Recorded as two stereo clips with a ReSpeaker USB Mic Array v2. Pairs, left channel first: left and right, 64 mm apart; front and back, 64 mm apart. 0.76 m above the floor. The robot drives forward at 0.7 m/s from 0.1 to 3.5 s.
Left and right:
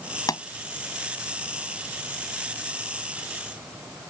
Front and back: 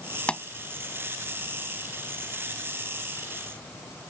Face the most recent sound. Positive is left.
turn(degrees=95)